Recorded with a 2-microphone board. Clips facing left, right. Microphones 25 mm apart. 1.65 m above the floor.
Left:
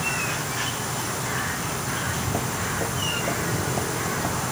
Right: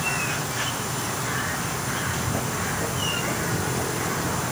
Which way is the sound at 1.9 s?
20° left (ahead or behind).